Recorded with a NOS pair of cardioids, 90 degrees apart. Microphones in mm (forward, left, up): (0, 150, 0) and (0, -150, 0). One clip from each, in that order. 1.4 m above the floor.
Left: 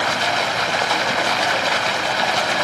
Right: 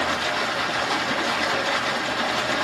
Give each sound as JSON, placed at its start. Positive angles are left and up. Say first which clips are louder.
{"t": 0.0, "sound": "running water", "louder": "left 4 dB", "azimuth_deg": 65, "distance_m": 1.4}